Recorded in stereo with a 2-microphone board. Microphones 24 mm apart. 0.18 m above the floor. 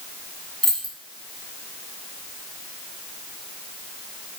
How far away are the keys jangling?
About 0.7 m.